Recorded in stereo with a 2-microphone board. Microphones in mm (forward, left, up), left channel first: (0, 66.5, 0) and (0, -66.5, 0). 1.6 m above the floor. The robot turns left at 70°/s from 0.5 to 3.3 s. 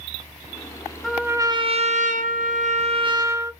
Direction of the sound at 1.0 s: Straight ahead.